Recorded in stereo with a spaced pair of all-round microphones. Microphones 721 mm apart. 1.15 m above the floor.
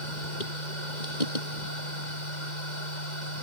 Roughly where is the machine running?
Left.